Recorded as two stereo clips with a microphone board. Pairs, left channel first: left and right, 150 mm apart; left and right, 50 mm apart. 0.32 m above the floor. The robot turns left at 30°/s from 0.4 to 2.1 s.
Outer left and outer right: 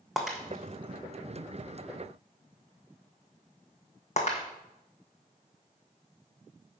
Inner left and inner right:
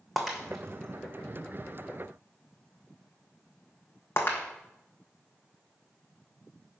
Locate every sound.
0.2 s breaking glass: centre (ahead or behind), 1.3 m; by 4.5 s 50° left (ahead or behind), 1.3 m